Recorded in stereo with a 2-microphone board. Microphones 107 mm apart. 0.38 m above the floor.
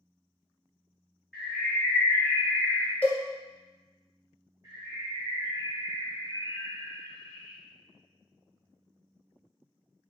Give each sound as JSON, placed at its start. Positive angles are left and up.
{"t": 1.3, "sound": "a bird", "side_deg": 0, "distance_m": 1.9}
{"t": 3.0, "sound": "a cowbell", "side_deg": 15, "distance_m": 0.7}
{"t": 4.6, "sound": "a bird", "side_deg": -35, "distance_m": 1.3}